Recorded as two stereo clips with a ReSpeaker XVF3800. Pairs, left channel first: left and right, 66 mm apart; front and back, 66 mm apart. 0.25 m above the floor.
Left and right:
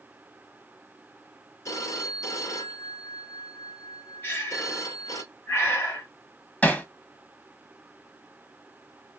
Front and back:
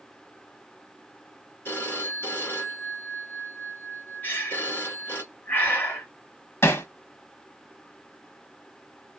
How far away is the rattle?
No rattle in this recording.